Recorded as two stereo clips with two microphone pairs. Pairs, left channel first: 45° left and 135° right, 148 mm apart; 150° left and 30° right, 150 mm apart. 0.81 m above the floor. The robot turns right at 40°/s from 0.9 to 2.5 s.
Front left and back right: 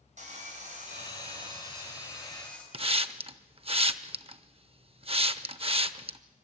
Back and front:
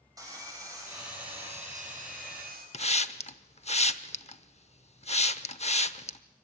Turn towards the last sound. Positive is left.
turn(degrees=-175)